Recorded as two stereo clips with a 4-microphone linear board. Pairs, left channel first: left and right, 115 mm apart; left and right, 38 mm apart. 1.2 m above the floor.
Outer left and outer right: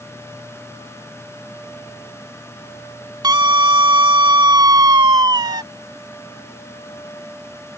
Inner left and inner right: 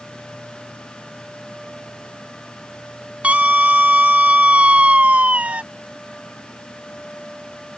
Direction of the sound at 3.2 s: 40° right (ahead or behind).